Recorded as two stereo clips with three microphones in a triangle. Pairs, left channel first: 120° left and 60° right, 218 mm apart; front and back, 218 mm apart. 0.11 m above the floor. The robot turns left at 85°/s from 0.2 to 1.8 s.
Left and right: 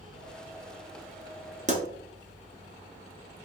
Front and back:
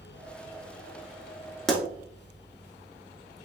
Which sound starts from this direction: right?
A pop, at 1.7 s.